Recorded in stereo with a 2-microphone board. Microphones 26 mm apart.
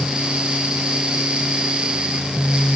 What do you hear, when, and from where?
Only background noise.